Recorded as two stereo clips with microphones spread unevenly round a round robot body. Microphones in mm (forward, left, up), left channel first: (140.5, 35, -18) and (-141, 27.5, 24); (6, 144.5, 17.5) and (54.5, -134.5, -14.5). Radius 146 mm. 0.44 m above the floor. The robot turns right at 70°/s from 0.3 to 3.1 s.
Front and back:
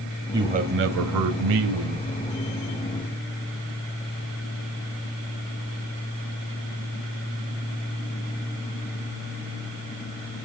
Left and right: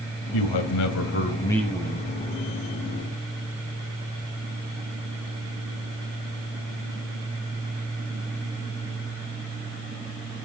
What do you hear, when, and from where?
0.3 s a man speaking: 100° left, 2 m; by 2.1 s 140° right, 2 m